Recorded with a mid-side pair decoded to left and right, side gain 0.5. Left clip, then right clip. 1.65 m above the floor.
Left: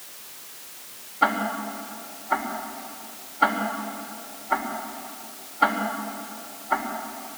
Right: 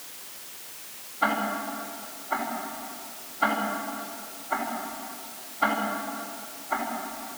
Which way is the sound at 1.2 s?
45° left.